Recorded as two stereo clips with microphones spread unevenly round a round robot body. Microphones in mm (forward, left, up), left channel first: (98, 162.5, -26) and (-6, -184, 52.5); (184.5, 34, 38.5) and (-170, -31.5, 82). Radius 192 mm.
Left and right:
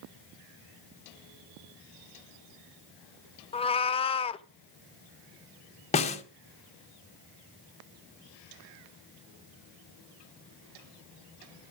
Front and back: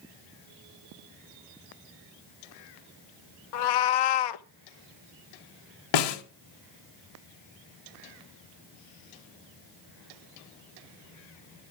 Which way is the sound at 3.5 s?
Straight ahead.